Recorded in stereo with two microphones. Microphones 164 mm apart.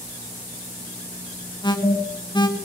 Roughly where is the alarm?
Left.